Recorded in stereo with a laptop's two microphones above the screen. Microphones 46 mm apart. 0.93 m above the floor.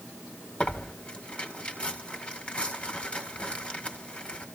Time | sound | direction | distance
0.6 | tearing paper | 25° left (ahead or behind) | 1.9 m